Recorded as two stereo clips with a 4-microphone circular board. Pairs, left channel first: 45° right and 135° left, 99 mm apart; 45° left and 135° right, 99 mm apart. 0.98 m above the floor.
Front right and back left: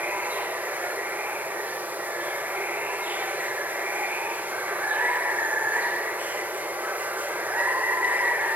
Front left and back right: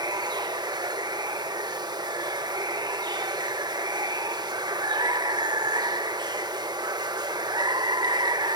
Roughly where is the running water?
Behind.